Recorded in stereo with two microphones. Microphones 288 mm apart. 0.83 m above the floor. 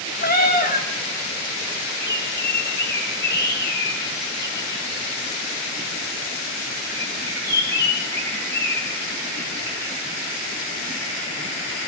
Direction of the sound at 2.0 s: 35° left (ahead or behind).